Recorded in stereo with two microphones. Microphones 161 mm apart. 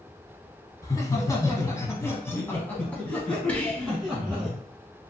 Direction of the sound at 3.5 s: 10° left (ahead or behind).